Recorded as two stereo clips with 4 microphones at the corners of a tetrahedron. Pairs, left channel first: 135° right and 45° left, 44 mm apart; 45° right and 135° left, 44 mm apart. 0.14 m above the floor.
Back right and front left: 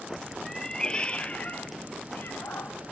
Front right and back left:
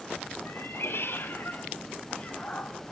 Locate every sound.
0.5 s a cat meowing: 55° right, 1.1 m; by 2.9 s 115° right, 1.5 m